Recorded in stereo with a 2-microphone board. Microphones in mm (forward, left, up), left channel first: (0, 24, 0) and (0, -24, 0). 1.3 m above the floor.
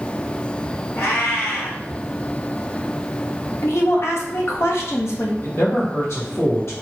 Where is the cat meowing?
60° left (ahead or behind), 1.9 m.